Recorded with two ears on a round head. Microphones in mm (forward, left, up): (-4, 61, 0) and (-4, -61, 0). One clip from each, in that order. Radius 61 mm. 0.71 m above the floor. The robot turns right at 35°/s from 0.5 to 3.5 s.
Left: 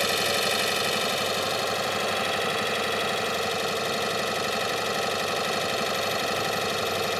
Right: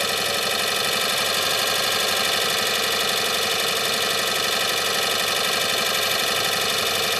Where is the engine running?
160° right; by 7.2 s 55° right.